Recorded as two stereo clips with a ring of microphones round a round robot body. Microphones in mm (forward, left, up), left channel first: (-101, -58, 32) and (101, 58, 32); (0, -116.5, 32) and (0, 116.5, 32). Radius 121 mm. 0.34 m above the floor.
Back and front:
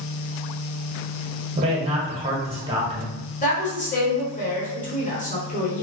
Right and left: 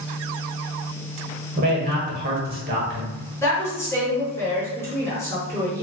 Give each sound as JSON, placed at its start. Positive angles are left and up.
{"t": 1.6, "sound": "a man speaking", "azimuth_deg": 80, "distance_m": 1.0}
{"t": 3.4, "sound": "a woman speaking", "azimuth_deg": -160, "distance_m": 1.2}